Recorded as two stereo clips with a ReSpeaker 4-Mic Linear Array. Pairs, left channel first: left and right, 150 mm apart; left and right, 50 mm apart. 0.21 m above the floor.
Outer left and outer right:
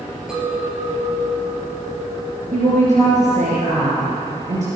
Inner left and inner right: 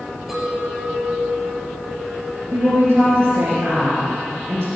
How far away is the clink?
About 3 m.